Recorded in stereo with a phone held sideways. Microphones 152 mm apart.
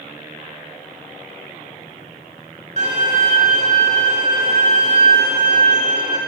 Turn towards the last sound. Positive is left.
turn(degrees=-45)  # may be behind; listen again after turning